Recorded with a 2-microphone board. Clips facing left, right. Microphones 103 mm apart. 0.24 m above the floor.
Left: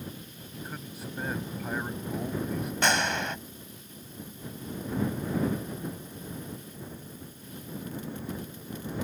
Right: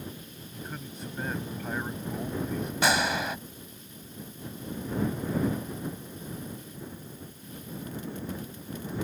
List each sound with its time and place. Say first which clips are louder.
0.5 s a man speaking: even; 5° left (ahead or behind)
2.8 s a gunshot: right 1 dB; 5° right (ahead or behind)